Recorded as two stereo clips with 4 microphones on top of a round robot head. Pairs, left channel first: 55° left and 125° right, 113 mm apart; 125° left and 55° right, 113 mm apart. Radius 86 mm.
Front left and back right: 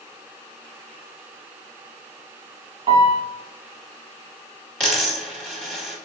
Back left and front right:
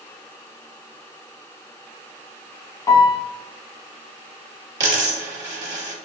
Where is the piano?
175° right, 0.9 m.